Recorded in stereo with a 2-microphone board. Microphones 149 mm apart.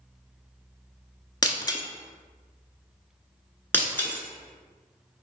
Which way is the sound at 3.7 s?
15° left (ahead or behind).